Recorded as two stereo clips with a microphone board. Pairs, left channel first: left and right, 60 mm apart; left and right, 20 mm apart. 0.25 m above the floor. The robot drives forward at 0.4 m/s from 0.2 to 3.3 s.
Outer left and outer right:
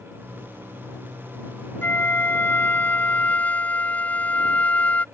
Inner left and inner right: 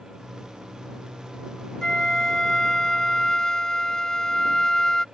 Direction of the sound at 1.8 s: 35° left (ahead or behind).